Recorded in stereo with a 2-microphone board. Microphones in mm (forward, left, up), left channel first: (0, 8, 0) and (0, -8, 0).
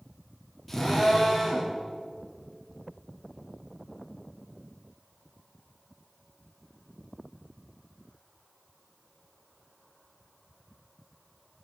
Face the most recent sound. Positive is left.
turn(degrees=10)  # may be behind; listen again after turning